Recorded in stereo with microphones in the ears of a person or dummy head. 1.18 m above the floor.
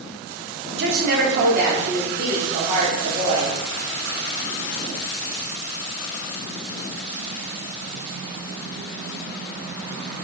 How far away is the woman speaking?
About 0.8 m.